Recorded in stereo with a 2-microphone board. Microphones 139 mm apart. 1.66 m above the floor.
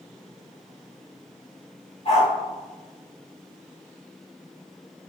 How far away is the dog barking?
About 1.8 m.